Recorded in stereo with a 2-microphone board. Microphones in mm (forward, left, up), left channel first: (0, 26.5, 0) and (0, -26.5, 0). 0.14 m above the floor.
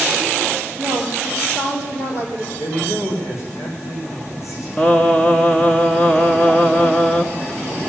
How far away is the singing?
About 1.0 m.